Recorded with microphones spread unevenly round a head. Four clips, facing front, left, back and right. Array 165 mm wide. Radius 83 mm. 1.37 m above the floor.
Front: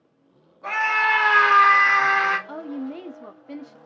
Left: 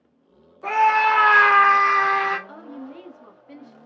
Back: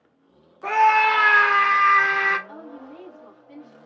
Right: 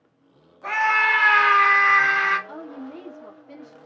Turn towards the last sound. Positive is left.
turn(degrees=-5)